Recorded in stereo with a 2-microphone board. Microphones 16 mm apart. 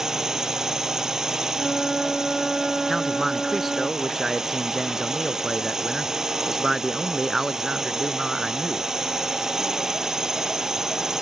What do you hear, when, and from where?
0.0 s a drone: 30° right (ahead or behind)
1.6 s a flute: 15° left (ahead or behind)
2.9 s a man speaking: 10° right (ahead or behind)